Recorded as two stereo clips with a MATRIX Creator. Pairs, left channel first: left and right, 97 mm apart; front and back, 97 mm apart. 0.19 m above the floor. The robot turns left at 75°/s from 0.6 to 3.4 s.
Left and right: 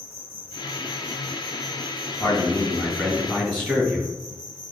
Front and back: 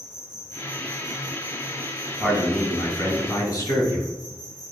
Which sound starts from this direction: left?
A man speaking, at 2.2 s.